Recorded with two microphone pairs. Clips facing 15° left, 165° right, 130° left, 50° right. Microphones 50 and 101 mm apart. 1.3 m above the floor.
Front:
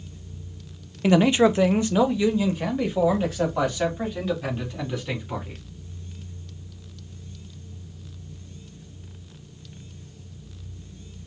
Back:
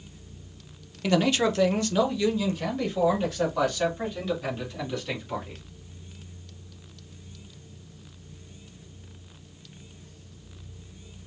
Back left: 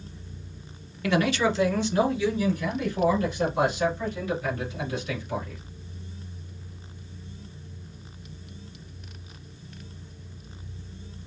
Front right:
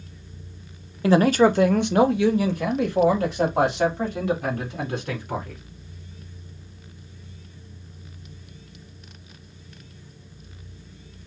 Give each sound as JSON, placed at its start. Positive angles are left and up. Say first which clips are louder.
{"t": 1.0, "sound": "a man speaking", "louder": "front 5 dB, front right 7 dB", "azimuth_deg": -30, "distance_m": 0.5}